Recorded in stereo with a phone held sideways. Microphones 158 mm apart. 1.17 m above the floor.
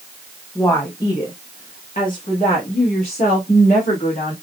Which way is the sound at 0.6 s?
15° left (ahead or behind).